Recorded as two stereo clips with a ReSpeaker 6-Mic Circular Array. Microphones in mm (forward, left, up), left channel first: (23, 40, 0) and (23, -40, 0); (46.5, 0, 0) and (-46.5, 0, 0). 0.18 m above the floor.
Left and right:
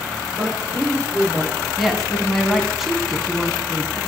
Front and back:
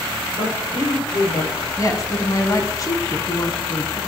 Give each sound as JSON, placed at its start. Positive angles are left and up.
{"t": 0.3, "sound": "a man speaking", "azimuth_deg": -25, "distance_m": 7.5}
{"t": 1.8, "sound": "a woman speaking", "azimuth_deg": 0, "distance_m": 1.9}